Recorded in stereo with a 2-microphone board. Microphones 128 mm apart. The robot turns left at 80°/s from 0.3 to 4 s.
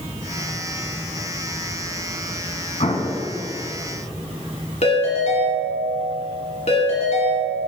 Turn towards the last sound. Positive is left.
turn(degrees=60)  # may be behind; listen again after turning